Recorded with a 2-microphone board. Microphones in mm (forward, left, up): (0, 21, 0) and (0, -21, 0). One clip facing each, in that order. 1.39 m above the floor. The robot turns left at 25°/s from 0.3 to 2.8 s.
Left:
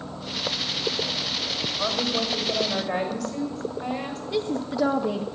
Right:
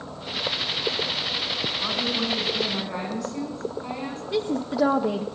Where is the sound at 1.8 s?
70° left (ahead or behind), 5.5 m; by 4.2 s 85° left, 5.5 m.